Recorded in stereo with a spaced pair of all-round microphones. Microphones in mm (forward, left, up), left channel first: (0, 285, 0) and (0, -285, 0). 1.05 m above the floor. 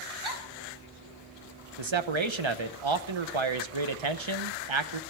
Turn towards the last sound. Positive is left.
turn(degrees=-55)  # may be behind; listen again after turning